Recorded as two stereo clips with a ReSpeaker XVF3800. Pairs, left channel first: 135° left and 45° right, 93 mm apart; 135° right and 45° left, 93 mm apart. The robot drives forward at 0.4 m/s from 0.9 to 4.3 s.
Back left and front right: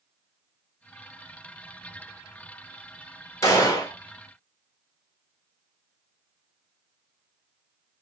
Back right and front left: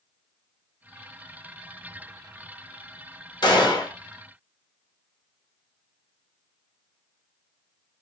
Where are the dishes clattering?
I don't hear dishes clattering.